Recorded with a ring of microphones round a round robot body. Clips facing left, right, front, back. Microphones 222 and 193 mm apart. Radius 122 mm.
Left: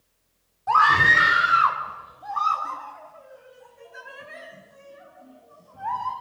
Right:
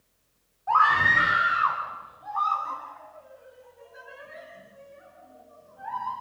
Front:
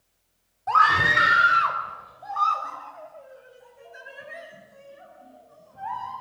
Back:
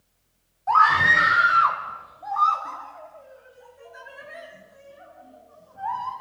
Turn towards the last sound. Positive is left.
turn(degrees=65)